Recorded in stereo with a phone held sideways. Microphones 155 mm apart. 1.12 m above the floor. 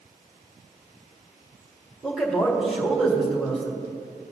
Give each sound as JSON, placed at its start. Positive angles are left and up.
{"t": 2.0, "sound": "a man speaking", "side_deg": 0, "distance_m": 2.0}